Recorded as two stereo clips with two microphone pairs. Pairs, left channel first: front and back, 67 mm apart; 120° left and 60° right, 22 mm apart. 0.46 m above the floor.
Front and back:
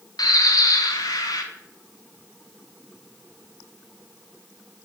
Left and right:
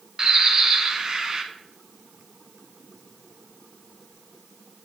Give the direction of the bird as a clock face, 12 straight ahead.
12 o'clock.